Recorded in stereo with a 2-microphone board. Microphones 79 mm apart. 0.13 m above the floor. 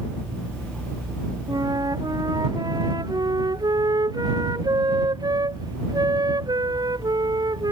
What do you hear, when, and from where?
1.5 s a flute: 55° right (ahead or behind)